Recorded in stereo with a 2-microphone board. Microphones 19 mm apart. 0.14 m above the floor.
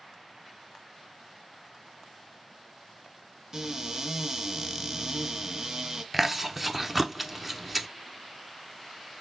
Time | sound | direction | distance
3.5 | a cupboard door | 35° right (ahead or behind) | 1.8 m
6.1 | chewing | 10° right (ahead or behind) | 0.6 m